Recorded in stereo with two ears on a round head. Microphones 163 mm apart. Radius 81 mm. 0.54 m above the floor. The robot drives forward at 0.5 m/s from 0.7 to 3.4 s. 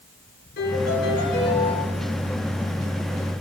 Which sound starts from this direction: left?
A piano, at 0.6 s.